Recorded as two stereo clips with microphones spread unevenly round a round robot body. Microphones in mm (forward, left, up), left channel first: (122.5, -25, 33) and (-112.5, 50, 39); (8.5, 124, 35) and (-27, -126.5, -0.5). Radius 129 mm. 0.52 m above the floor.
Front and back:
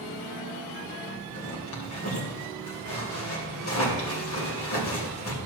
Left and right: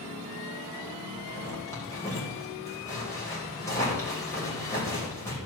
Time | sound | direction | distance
1.3 | a zipper | straight ahead | 3 m